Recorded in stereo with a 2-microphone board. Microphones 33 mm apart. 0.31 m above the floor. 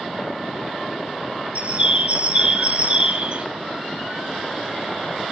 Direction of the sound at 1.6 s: 50° right (ahead or behind).